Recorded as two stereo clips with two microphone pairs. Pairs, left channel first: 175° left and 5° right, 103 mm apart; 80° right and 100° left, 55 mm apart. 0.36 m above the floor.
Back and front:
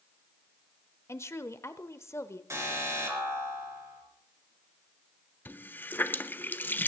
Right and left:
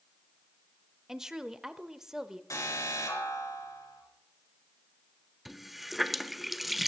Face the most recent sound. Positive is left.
turn(degrees=-160)